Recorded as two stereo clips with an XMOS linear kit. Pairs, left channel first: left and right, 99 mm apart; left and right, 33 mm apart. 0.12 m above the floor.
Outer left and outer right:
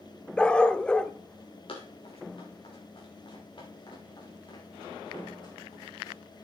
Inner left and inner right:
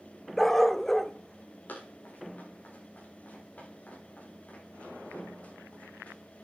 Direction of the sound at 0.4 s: 10° left (ahead or behind).